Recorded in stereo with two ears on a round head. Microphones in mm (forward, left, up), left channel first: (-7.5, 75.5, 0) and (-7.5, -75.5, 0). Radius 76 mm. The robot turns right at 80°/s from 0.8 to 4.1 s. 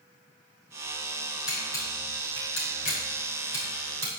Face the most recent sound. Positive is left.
turn(degrees=-25)  # may be behind; listen again after turning